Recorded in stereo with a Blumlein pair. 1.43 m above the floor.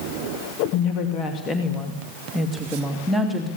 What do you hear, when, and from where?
0.7 s a woman speaking: 35° left, 2.5 m; by 3.5 s 10° right, 3 m